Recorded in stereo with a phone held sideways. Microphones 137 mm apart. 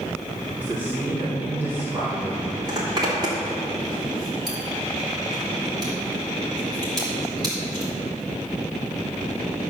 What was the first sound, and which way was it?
A man speaking, 15° right (ahead or behind).